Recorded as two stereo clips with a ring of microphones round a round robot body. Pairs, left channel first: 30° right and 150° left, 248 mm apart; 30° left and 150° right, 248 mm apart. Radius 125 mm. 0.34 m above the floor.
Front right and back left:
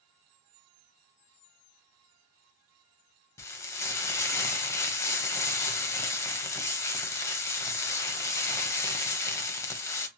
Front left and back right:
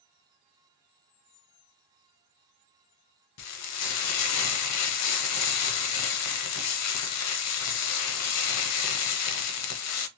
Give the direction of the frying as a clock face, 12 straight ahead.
10 o'clock.